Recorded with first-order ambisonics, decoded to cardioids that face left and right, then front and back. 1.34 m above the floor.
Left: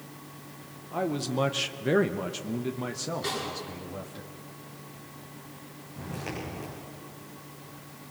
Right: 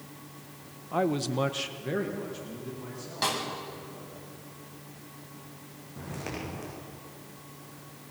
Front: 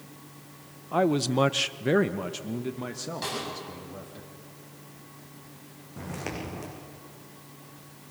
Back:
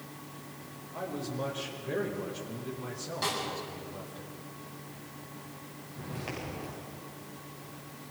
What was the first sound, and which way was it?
A man speaking, 20° right.